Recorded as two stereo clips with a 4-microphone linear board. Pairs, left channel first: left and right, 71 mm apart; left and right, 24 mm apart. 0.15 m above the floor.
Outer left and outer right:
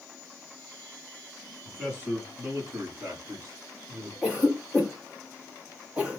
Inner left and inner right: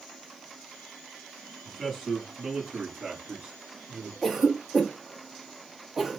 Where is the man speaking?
10° right (ahead or behind), 1.5 m; by 4.1 s 60° right (ahead or behind), 2.5 m.